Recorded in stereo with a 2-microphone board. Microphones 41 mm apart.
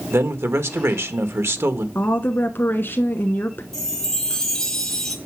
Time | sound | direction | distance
0.1 | a man speaking | 80° right | 1.5 m
1.9 | a woman speaking | 55° left (ahead or behind) | 1.2 m
3.7 | a chime | 10° left (ahead or behind) | 2.5 m